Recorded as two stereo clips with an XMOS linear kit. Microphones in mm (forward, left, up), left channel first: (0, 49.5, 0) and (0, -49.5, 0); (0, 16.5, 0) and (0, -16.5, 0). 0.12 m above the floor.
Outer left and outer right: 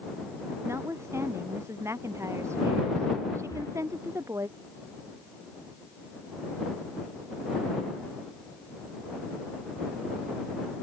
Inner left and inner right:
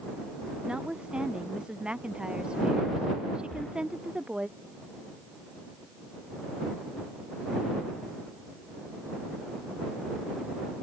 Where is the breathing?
30° left (ahead or behind).